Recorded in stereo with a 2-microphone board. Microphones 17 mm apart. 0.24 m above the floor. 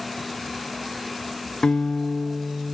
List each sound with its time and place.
1.6 s a guitar: 55° left (ahead or behind), 0.7 m